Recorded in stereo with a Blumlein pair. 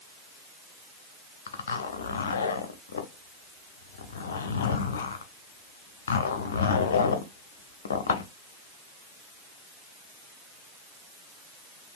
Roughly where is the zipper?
Ahead left.